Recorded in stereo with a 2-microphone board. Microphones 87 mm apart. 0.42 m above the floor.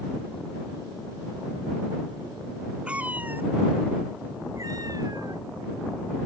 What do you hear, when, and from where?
2.9 s a cat meowing: 10° right (ahead or behind); by 6.3 s 55° right (ahead or behind)